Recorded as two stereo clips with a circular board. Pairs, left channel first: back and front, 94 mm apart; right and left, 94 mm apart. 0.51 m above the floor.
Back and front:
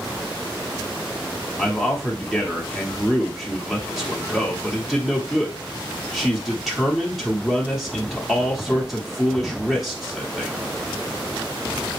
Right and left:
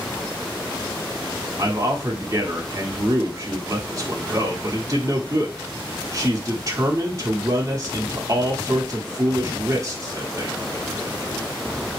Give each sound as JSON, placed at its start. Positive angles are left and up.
{"t": 1.6, "sound": "a man speaking", "azimuth_deg": 85, "distance_m": 1.2}